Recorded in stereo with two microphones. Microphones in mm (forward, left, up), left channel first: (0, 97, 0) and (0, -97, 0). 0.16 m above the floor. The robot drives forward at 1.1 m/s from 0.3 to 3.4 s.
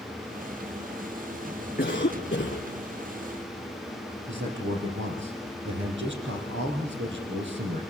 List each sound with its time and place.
1.8 s a cough: 50° left (ahead or behind), 2.5 m; by 2.7 s 40° left (ahead or behind), 3 m
4.3 s a man speaking: 75° right (ahead or behind), 5 m